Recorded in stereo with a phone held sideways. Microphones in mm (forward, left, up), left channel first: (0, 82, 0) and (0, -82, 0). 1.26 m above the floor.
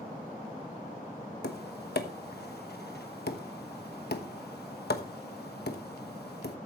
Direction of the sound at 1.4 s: 80° left.